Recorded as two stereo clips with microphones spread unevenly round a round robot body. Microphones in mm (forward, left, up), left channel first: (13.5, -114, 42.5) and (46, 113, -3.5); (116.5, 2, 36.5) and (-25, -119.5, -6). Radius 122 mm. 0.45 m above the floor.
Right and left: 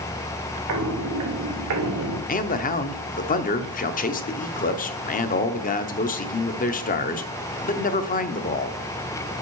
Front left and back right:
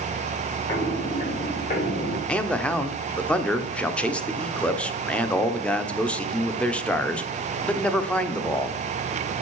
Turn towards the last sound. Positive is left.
turn(degrees=-60)